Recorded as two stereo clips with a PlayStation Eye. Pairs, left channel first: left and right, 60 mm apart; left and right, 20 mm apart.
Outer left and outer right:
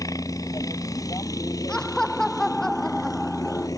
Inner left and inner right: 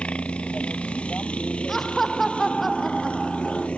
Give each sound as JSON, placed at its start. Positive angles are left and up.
{"t": 0.0, "sound": "a helicopter", "side_deg": 70}
{"t": 1.7, "sound": "laughter", "side_deg": 10}